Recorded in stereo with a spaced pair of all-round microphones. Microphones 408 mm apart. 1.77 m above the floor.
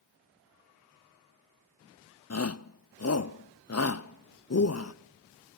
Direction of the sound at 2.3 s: 40° left (ahead or behind).